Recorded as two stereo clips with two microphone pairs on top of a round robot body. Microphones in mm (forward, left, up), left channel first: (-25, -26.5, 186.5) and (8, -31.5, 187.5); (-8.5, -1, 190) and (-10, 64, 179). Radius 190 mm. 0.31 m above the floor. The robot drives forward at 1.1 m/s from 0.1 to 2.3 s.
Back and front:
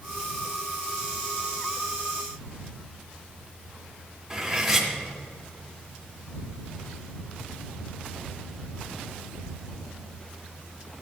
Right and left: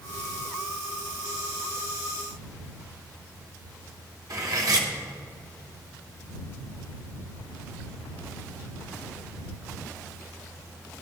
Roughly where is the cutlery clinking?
Left.